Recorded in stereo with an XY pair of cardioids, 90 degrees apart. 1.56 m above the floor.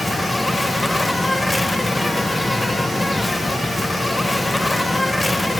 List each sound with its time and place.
0.0 s an insect: 10° left, 1.5 m